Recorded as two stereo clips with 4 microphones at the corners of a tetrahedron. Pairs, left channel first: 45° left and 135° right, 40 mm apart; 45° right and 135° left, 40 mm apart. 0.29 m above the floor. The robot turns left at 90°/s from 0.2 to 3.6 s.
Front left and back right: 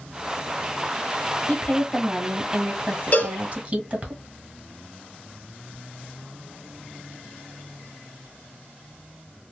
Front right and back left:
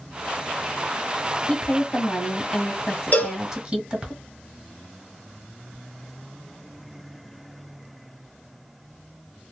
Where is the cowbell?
Straight ahead, 0.8 m; by 3.4 s 30° right, 0.8 m.